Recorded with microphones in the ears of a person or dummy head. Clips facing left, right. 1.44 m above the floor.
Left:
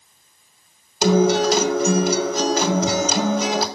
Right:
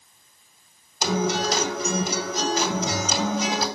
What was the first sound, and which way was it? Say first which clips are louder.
A guitar: left 8 dB; 55° left (ahead or behind).